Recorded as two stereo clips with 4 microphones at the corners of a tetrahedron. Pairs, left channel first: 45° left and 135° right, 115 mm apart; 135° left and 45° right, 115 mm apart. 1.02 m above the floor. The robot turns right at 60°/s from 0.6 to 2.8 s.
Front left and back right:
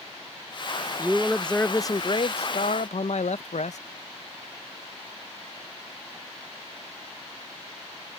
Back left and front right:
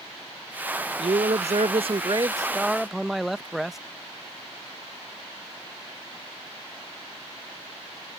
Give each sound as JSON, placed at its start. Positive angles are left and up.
{"t": 1.0, "sound": "a man speaking", "azimuth_deg": -65}